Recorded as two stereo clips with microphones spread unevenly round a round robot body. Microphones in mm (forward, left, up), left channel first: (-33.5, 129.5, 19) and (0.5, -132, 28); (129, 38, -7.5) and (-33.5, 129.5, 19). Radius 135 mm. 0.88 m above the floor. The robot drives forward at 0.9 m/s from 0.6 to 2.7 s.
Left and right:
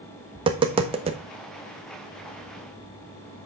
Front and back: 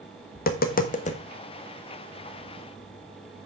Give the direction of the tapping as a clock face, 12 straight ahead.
12 o'clock.